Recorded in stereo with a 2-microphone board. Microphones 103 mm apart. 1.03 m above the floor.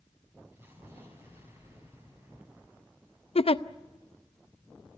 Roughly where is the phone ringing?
I don't hear a phone ringing.